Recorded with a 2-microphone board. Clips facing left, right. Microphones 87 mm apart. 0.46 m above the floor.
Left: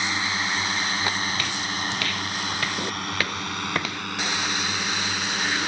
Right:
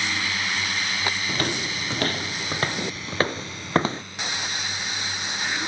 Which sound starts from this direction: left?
A drone, at 0.0 s.